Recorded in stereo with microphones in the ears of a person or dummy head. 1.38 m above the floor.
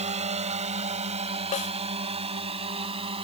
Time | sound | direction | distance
0.0 | a drone | 30° right (ahead or behind) | ?
1.5 | a snare drum | 45° left (ahead or behind) | ?